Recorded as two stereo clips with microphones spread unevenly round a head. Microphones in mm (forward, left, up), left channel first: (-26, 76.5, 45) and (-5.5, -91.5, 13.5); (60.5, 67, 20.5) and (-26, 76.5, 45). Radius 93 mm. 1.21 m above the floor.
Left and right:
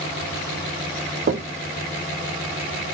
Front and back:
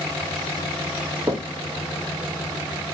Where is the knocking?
110° right, 0.5 m.